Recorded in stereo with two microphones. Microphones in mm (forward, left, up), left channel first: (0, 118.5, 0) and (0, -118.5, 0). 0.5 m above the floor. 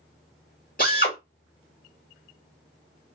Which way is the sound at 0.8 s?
40° left (ahead or behind).